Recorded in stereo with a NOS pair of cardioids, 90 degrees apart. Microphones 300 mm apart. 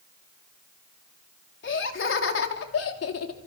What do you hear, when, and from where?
1.6 s laughter: 40° left, 4.5 m; by 3.5 s 55° left, 5 m